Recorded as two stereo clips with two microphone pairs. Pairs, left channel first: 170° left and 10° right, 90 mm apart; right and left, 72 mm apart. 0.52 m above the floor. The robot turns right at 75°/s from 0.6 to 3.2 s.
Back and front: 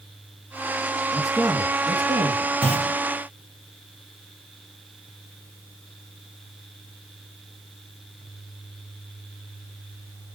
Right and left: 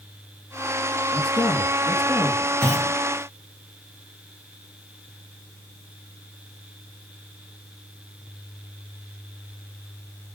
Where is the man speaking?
100° right, 5.5 m; by 2.5 s 5° left, 5.5 m.